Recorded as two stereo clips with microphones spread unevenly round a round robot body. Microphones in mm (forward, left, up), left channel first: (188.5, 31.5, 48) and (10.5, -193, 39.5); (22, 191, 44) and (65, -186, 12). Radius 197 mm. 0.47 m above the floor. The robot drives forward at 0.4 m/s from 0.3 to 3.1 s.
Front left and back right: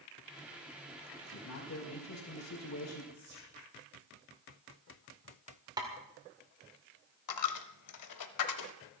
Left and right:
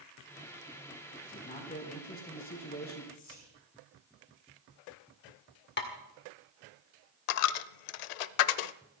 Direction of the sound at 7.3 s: 95° left.